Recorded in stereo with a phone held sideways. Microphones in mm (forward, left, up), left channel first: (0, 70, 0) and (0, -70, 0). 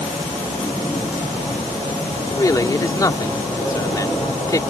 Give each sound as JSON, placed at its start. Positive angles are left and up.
{"t": 2.3, "sound": "a man speaking", "side_deg": 25}